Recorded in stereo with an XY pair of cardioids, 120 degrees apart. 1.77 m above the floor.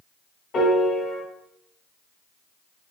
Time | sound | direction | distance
0.5 | a piano | 55° left | 1.3 m